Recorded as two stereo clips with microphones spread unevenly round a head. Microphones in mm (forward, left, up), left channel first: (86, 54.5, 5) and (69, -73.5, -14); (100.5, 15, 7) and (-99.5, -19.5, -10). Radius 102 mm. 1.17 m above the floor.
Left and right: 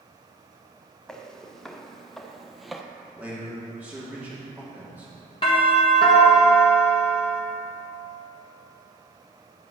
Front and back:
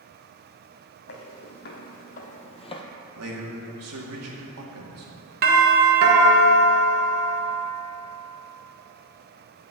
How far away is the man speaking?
About 2.5 m.